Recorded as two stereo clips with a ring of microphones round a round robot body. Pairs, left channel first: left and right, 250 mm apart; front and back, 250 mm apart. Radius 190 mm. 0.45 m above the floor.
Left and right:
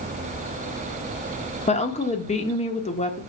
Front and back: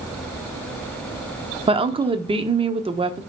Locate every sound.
1.7 s a woman speaking: 130° left, 1.1 m